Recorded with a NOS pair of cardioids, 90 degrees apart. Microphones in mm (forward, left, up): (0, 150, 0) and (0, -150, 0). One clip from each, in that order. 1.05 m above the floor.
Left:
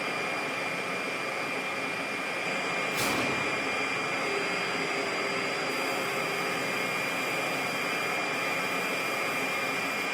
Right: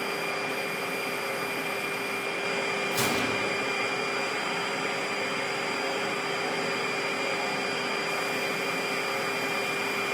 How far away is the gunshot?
About 0.7 m.